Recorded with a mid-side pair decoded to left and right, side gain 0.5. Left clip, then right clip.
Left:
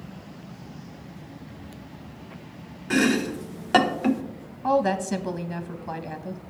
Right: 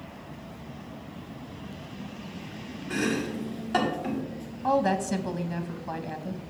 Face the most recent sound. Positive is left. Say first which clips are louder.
# left 2 dB
turn(degrees=15)